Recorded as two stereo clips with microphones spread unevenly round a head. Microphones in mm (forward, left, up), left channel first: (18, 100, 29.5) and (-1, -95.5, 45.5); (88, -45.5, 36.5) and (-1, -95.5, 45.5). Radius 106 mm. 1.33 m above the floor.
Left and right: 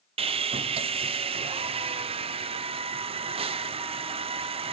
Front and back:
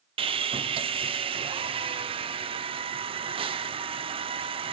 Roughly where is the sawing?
Behind right.